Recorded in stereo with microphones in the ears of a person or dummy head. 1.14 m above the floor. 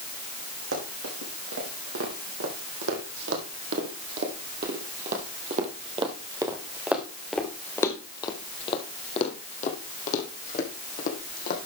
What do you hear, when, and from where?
0.7 s running footsteps: 75° right (ahead or behind), 5 m; by 11.7 s 55° left (ahead or behind), 4 m